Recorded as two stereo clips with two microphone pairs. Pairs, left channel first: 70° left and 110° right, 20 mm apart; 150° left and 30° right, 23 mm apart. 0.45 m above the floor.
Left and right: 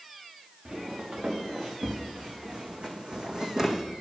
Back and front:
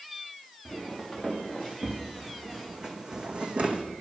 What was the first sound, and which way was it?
Footsteps, 115° right.